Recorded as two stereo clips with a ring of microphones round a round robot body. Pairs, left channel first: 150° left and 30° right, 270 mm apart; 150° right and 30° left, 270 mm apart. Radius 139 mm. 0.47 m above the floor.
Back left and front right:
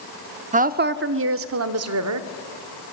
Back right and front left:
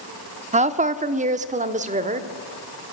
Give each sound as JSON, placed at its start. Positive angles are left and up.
{"t": 0.5, "sound": "a woman speaking", "azimuth_deg": -5, "distance_m": 0.8}